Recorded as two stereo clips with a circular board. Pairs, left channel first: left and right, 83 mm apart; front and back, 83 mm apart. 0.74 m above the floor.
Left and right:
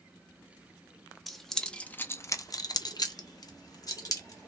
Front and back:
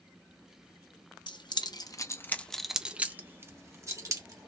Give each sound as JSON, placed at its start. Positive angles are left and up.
{"t": 1.3, "sound": "keys jangling", "azimuth_deg": 0, "distance_m": 0.8}